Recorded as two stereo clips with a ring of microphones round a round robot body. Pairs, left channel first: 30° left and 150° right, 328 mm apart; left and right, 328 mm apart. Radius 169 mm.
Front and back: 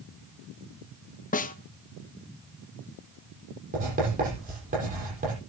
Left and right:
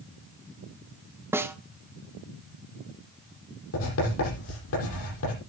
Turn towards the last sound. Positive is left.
turn(degrees=140)